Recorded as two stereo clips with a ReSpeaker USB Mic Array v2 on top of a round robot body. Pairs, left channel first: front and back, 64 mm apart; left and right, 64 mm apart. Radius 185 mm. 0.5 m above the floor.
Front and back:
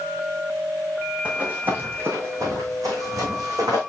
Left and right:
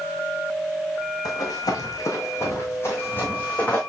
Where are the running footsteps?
110° left, 1.9 m; by 3.8 s 160° left, 2.0 m.